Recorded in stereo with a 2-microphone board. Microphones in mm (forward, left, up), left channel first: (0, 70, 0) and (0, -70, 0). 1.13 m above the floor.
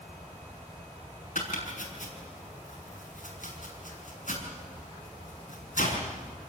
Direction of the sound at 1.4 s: 65° left (ahead or behind).